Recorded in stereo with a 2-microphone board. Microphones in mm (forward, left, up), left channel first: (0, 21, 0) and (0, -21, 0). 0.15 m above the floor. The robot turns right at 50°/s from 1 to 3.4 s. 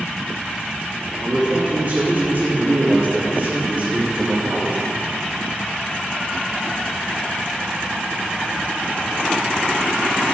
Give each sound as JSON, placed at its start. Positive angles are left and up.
{"t": 1.2, "sound": "a man speaking", "azimuth_deg": -175, "distance_m": 2.5}